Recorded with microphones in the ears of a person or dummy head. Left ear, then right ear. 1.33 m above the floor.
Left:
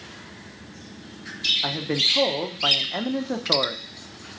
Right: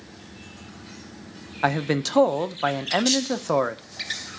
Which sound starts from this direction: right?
A man speaking, at 1.6 s.